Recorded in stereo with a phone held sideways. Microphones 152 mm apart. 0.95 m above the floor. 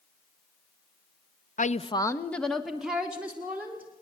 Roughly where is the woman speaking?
Left.